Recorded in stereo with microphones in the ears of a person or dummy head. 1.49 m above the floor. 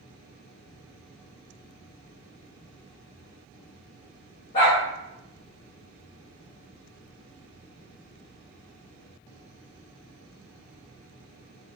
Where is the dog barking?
30° left (ahead or behind), 0.9 m.